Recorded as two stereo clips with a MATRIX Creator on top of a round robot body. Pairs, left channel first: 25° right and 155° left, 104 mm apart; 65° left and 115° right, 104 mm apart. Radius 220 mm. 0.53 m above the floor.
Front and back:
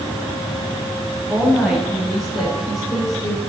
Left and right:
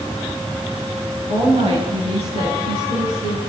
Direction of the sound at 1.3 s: 120° right.